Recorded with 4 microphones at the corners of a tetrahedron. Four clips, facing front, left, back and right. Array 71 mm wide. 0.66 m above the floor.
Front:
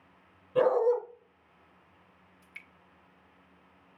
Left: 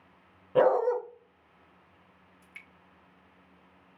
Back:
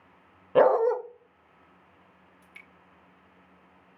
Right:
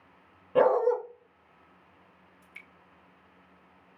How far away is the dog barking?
About 0.9 m.